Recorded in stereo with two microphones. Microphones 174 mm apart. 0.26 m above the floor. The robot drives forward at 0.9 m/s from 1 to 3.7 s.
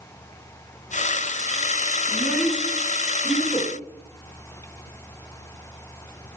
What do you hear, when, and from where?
2.1 s a child speaking: centre (ahead or behind), 1.4 m